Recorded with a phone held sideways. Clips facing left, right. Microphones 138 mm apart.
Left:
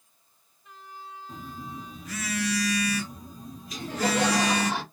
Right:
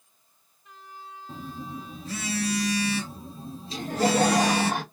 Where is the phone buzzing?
30° right (ahead or behind), 0.7 m.